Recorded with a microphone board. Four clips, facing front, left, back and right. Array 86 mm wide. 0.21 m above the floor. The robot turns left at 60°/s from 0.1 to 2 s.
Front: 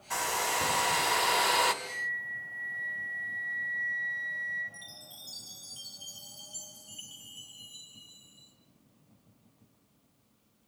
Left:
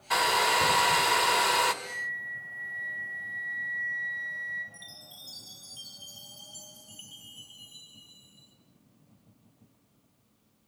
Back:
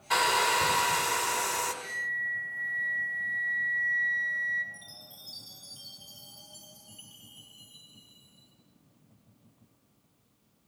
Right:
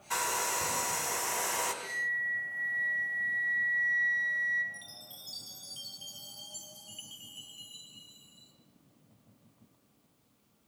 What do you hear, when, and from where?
0.1 s a hair dryer: 130° left, 1.9 m; by 1.7 s 30° left, 1.9 m
1.8 s a flute: 115° right, 6 m; by 4.6 s 125° right, 6 m
4.7 s a chime: 70° right, 5 m